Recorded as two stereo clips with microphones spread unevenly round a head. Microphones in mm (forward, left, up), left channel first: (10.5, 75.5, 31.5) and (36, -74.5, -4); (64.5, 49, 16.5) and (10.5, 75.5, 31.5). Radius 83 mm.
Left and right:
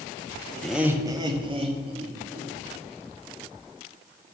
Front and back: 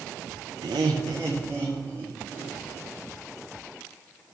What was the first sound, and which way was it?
Laughter, 175° right.